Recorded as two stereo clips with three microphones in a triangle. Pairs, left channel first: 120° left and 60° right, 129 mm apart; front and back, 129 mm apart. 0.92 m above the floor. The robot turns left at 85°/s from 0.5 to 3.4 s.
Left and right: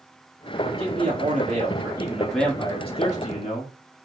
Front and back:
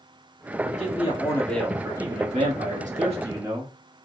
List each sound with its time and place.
0.6 s a man speaking: 5° right, 1.9 m; by 3.7 s 120° left, 1.9 m